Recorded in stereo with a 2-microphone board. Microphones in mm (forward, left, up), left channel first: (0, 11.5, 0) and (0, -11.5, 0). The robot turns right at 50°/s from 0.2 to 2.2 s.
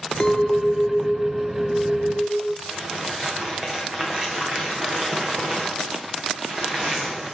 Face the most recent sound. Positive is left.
turn(degrees=-40)  # may be behind; listen again after turning